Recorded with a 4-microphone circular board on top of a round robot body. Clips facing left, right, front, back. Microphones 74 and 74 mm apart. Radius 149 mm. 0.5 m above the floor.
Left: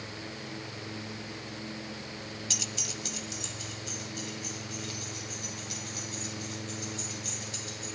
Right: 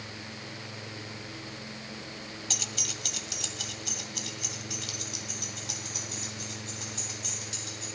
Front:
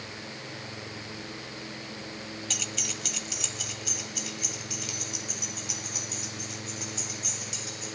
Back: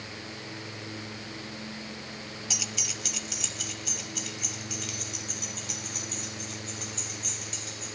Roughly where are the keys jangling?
Right.